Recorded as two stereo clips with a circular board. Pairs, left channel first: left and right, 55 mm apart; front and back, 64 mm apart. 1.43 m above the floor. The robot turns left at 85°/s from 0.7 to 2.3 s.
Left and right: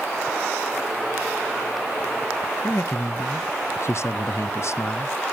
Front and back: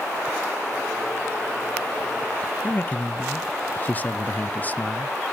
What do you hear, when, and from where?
2.6 s a man speaking: 60° left, 0.5 m